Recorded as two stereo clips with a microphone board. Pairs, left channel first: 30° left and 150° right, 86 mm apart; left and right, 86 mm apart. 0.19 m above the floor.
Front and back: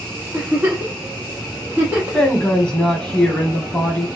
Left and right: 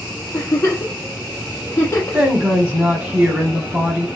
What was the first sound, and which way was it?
A giggle, 145° left.